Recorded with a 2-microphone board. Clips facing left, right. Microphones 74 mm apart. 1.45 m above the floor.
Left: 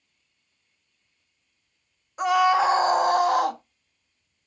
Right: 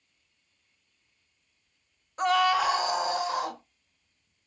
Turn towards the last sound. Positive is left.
turn(degrees=75)  # may be behind; listen again after turning